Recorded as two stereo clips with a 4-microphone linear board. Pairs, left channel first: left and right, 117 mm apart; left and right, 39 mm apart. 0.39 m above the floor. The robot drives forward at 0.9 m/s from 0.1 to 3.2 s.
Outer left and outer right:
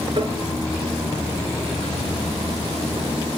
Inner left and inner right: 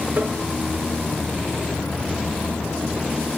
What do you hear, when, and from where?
0.1 s tapping: 40° right (ahead or behind), 3.5 m; by 0.4 s 45° right (ahead or behind), 3.5 m